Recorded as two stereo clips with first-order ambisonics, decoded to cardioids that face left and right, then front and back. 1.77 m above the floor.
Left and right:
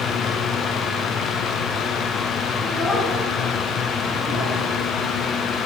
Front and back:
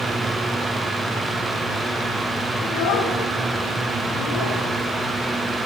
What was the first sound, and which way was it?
A child speaking, 5° left.